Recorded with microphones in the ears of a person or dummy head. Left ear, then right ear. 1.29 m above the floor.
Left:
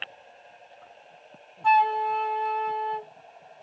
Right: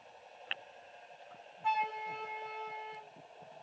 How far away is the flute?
About 1.6 m.